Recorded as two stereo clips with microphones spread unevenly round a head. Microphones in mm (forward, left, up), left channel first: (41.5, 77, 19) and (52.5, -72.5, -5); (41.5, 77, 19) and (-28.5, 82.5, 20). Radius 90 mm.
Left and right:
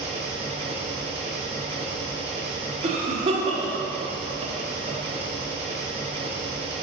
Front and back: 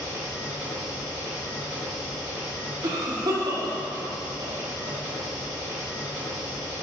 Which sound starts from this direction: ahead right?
An engine running, at 0.0 s.